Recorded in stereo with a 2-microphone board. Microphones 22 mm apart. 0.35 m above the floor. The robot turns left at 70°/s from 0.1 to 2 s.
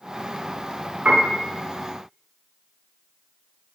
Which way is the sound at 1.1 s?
85° right.